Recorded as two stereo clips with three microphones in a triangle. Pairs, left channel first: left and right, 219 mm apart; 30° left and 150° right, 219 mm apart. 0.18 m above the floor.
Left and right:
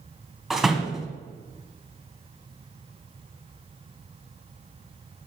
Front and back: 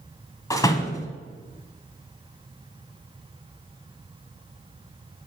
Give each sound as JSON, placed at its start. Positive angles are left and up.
{"t": 0.5, "sound": "a door slam", "azimuth_deg": -5, "distance_m": 0.9}